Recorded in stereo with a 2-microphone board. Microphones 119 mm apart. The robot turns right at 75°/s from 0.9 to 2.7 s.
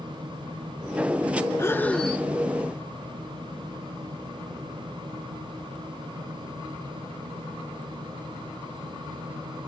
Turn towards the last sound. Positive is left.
turn(degrees=-140)